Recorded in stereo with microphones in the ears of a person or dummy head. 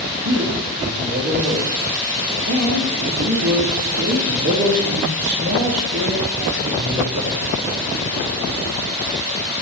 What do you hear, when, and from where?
0.2 s a man speaking: 90° right, 4.5 m